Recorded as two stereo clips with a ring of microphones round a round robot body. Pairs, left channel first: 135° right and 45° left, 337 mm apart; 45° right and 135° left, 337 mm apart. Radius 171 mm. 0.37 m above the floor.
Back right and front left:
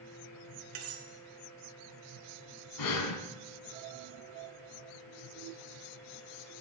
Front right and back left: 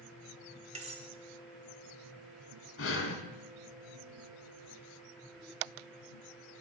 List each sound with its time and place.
0.8 s cutlery clinking: 65° left, 1.2 m
2.8 s breathing: 100° right, 1.1 m